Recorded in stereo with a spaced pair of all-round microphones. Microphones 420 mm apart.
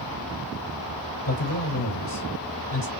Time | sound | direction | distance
1.2 | a man speaking | 60° left (ahead or behind) | 3.5 m